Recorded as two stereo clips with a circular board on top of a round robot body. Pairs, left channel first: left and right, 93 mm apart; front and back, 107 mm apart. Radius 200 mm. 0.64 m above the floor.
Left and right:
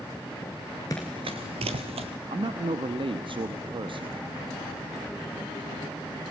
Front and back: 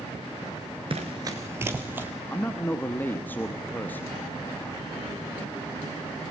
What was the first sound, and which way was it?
Running footsteps, 145° left.